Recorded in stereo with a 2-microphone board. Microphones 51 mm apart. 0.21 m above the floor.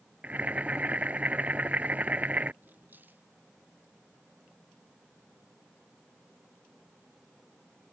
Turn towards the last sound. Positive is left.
turn(degrees=-40)  # may be behind; listen again after turning